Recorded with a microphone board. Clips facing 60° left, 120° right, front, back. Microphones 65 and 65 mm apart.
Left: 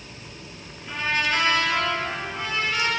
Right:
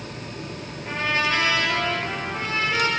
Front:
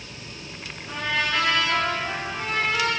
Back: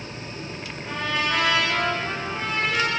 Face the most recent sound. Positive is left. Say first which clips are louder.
# right 1 dB, even
turn(degrees=-175)